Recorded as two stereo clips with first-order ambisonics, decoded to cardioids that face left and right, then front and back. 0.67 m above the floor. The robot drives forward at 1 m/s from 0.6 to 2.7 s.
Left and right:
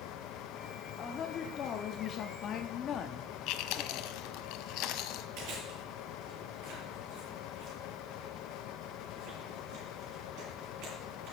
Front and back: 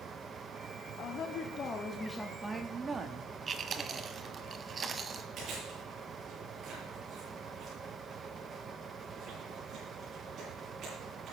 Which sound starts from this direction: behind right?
Chewing, at 5.4 s.